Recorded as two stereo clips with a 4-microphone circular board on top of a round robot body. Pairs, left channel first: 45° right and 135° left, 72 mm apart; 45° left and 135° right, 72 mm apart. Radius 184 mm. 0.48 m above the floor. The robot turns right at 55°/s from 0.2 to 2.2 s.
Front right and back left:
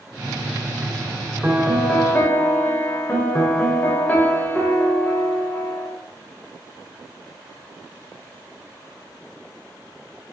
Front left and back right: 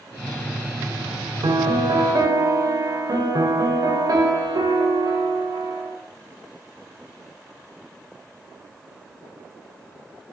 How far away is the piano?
About 0.6 m.